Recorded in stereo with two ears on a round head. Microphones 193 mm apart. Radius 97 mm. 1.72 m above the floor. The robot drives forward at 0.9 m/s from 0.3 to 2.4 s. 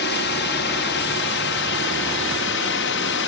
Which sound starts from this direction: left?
A drone, at 0.0 s.